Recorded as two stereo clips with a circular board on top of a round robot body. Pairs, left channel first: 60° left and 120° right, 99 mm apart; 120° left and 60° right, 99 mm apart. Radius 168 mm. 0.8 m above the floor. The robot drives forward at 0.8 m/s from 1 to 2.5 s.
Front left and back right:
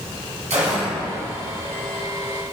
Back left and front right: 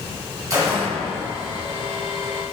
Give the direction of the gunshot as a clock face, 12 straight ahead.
4 o'clock.